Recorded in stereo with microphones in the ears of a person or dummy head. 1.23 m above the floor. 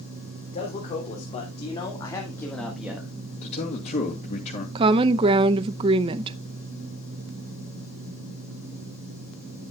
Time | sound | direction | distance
0.5 | a man speaking | 40° left (ahead or behind) | 4 m
3.4 | a man speaking | 35° left (ahead or behind) | 2.5 m
4.8 | a woman speaking | 30° right (ahead or behind) | 0.7 m